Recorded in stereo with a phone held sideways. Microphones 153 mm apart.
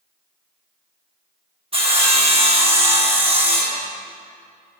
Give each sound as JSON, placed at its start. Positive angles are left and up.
{"t": 1.7, "sound": "sawing", "side_deg": -40, "distance_m": 1.1}